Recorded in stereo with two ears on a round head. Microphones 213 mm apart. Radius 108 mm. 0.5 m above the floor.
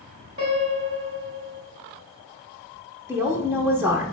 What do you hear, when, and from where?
0.4 s a piano: 35° right (ahead or behind), 3.5 m
3.1 s a woman speaking: 10° right (ahead or behind), 0.9 m